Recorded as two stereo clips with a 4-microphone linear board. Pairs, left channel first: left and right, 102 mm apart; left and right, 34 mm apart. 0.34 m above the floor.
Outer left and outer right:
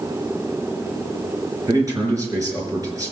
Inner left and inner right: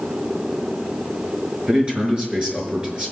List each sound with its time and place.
1.7 s a man speaking: 35° right (ahead or behind), 5.5 m